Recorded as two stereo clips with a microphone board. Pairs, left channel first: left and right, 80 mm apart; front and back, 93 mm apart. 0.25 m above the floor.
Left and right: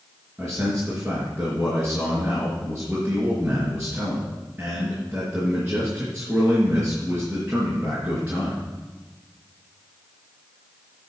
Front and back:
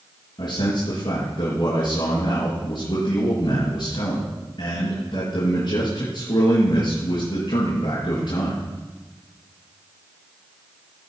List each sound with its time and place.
0.4 s a man speaking: 15° right, 4 m